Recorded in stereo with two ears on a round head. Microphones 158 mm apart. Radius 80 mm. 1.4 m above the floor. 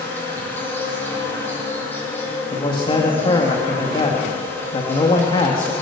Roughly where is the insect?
Centre.